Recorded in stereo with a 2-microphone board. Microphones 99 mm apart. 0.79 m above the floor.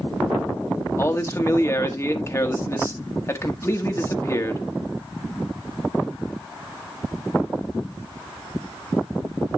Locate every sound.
1.0 s a man speaking: 30° left (ahead or behind), 1.3 m